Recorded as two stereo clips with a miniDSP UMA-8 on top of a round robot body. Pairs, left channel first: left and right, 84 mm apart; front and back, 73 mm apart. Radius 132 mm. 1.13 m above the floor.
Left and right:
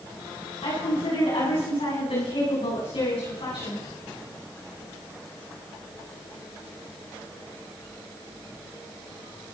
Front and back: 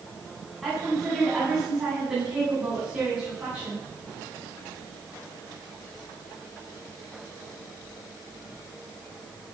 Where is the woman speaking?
90° left, 10 m; by 3.8 s 105° left, 10 m.